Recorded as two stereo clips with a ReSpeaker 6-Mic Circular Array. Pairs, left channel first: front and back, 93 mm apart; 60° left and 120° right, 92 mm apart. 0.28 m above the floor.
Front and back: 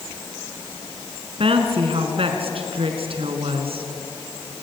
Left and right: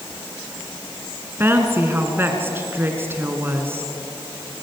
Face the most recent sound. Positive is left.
turn(degrees=175)